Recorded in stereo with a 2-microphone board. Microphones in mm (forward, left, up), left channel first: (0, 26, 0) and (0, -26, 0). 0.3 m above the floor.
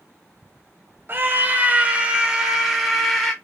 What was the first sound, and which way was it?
A scream, 40° right (ahead or behind).